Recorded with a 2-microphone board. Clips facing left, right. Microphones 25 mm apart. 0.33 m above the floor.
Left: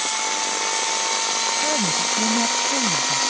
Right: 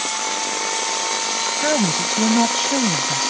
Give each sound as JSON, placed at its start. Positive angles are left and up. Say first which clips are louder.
{"t": 1.6, "sound": "a woman speaking", "louder": "right 2 dB", "side_deg": -55}